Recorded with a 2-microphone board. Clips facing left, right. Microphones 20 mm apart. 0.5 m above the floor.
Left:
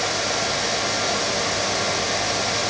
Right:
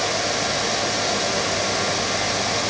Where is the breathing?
I don't hear breathing.